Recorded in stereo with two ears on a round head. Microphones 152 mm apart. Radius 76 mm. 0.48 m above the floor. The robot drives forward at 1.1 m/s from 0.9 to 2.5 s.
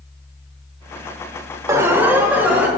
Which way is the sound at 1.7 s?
20° right (ahead or behind).